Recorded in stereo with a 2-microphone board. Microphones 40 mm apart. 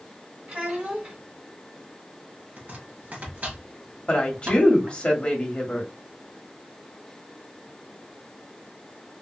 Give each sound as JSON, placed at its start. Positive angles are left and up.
{"t": 0.5, "sound": "a child speaking", "side_deg": -40, "distance_m": 1.2}
{"t": 2.6, "sound": "chopping", "side_deg": -45, "distance_m": 1.2}
{"t": 4.1, "sound": "a woman speaking", "side_deg": 30, "distance_m": 1.1}